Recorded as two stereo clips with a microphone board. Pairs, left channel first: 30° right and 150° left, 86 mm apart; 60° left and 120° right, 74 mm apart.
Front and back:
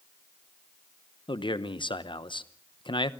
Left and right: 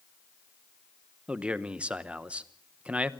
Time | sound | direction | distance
1.3 | a man speaking | 45° right | 0.8 m